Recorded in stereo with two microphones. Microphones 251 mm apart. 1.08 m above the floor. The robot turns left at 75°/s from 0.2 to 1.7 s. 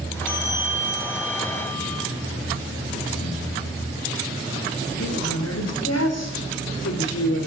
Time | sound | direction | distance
0.3 | a bell | 95° right | 3.5 m
3.1 | breathing | 60° left (ahead or behind) | 7.5 m
5.0 | a woman speaking | 85° left | 3.5 m